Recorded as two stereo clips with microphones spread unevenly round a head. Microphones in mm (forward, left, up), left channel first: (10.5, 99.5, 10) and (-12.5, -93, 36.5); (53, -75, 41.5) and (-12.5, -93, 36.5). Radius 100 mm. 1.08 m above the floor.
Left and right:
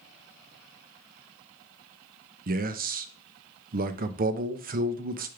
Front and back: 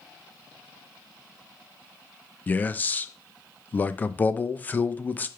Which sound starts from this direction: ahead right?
A man speaking, at 2.5 s.